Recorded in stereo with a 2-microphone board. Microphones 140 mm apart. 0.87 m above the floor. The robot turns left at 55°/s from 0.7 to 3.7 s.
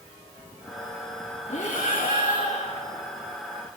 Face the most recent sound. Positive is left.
turn(degrees=-5)